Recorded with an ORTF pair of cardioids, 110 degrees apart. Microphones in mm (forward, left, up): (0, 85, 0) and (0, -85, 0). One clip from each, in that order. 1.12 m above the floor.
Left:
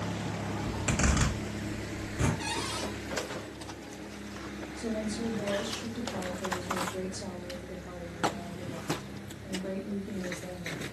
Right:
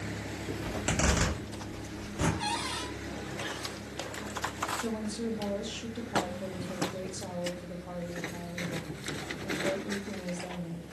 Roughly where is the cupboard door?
Ahead.